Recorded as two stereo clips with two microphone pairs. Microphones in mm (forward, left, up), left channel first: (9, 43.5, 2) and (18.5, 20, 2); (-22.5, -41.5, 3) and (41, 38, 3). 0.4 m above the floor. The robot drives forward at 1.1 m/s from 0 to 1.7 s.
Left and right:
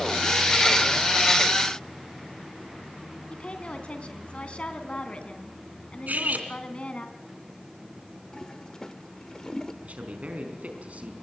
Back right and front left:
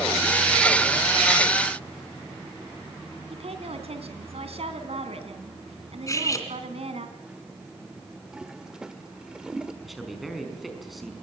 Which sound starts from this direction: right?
Cutlery clinking, at 6.1 s.